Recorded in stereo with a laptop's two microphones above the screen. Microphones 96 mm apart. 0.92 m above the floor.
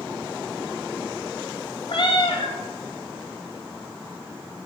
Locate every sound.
1.9 s a cat meowing: 60° left (ahead or behind), 0.7 m